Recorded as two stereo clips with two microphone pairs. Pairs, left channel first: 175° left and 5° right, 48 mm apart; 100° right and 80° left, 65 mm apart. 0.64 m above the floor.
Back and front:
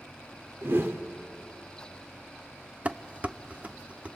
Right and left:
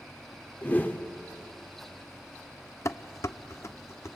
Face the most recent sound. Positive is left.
turn(degrees=-65)